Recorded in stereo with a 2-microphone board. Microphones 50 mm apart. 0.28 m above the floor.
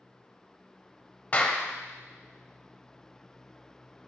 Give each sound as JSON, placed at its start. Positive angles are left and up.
{"t": 1.3, "sound": "a clap", "side_deg": 30, "distance_m": 0.8}